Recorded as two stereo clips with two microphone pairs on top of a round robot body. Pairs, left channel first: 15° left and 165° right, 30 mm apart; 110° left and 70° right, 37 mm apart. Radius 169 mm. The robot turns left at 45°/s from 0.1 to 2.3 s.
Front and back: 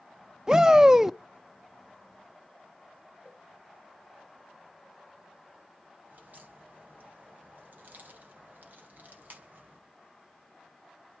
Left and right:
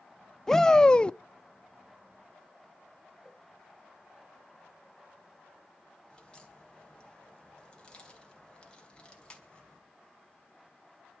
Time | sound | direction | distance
0.5 | a shout | 170° right | 0.7 m
3.2 | a cowbell | 130° right | 9.5 m
6.1 | a crack | straight behind | 3 m